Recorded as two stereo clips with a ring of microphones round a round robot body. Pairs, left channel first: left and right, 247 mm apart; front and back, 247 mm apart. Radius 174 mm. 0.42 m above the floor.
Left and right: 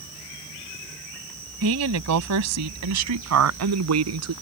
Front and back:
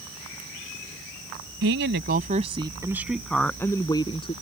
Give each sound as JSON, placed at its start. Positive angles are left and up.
{"t": 1.6, "sound": "a woman speaking", "azimuth_deg": -130}